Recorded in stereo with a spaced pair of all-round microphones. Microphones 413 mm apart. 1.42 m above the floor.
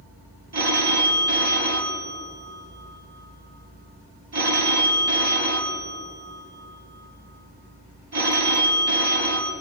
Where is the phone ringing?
75° right (ahead or behind), 2.5 m.